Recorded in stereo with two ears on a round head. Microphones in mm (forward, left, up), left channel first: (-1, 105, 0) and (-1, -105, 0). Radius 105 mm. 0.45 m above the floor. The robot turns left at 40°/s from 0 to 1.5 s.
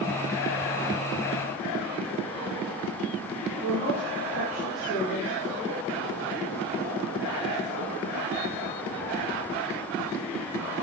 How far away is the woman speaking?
About 4 m.